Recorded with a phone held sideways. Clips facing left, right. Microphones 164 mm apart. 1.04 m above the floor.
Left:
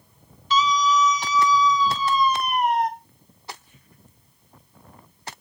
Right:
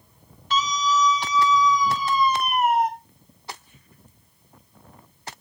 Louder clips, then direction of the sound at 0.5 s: Left 3 dB; 50° right (ahead or behind).